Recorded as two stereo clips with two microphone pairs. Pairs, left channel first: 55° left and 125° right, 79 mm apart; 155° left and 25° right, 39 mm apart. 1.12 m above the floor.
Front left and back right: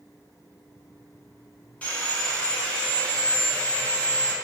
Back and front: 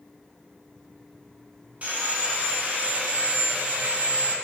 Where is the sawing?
15° right, 0.5 m.